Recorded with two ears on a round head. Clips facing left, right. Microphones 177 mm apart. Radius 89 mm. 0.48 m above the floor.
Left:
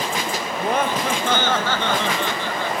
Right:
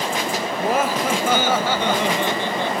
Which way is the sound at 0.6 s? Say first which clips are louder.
Right 1 dB; 5° right (ahead or behind).